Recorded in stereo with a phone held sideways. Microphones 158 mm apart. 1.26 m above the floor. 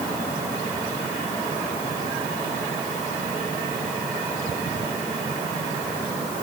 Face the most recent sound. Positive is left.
No sound to turn to.